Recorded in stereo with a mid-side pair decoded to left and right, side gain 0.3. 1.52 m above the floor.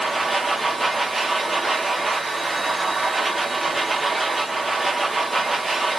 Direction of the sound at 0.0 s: 20° right.